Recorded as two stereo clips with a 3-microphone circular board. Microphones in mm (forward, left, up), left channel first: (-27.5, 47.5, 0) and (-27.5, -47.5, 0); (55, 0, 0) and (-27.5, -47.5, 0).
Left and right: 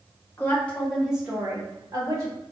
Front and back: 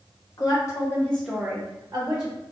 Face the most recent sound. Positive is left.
turn(degrees=-120)